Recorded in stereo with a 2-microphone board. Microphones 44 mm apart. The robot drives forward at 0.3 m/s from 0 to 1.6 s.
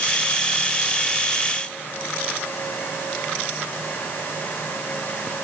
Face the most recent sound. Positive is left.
No sound to turn to.